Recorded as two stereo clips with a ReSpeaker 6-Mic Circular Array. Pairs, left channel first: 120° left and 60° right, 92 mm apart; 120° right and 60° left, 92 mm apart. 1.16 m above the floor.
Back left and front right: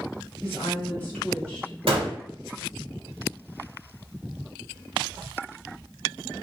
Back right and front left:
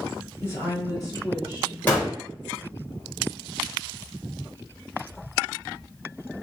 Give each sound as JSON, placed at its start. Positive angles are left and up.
{"t": 0.4, "sound": "a woman speaking", "azimuth_deg": 180, "distance_m": 1.6}
{"t": 1.9, "sound": "a gunshot", "azimuth_deg": -50, "distance_m": 1.2}